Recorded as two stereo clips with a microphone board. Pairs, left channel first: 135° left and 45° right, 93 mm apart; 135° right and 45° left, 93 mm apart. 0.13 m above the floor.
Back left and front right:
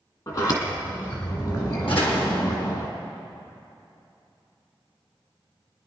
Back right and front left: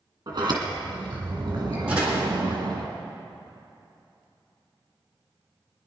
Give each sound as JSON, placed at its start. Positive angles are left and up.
{"t": 0.3, "sound": "a sliding door", "azimuth_deg": 90, "distance_m": 2.0}
{"t": 1.9, "sound": "a door slam", "azimuth_deg": 120, "distance_m": 3.5}